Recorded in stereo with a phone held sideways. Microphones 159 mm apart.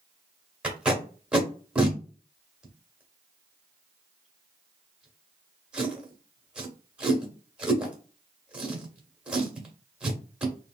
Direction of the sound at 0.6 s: 5° right (ahead or behind).